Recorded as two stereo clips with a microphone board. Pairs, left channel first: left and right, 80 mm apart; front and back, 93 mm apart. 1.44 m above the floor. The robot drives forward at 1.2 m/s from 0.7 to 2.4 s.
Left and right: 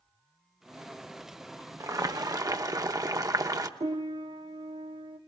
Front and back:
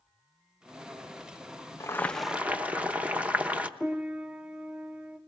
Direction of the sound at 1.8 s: 50° right.